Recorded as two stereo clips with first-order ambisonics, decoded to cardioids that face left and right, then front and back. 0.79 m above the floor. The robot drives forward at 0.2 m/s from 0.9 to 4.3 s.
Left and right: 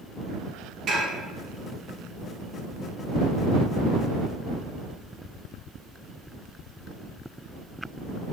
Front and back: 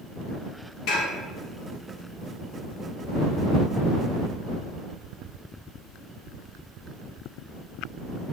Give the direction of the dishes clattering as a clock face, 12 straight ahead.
1 o'clock.